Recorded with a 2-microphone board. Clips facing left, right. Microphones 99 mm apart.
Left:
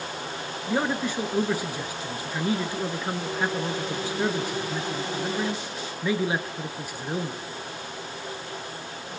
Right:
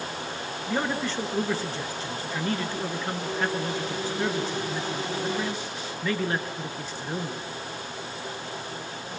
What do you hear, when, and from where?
0.7 s a man speaking: 10° left (ahead or behind), 1.5 m